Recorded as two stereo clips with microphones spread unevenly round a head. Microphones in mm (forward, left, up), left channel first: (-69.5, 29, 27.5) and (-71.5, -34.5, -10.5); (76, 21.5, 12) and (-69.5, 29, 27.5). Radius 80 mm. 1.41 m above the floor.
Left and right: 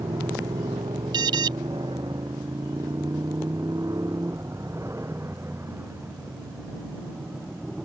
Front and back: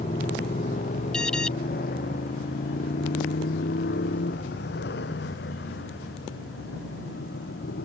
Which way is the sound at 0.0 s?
50° right.